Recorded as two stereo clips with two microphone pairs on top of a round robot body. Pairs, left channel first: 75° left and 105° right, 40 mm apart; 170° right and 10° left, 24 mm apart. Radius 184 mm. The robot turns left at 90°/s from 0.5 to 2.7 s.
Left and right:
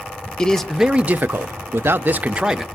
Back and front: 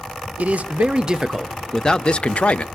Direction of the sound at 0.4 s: 5° left.